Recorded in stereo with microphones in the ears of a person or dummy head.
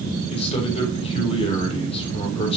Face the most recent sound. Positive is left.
turn(degrees=35)  # may be behind; listen again after turning